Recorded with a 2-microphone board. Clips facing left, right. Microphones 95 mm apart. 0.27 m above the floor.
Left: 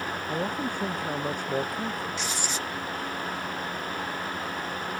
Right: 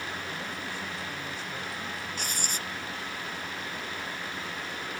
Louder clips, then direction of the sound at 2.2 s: Left 4 dB; 50° right (ahead or behind).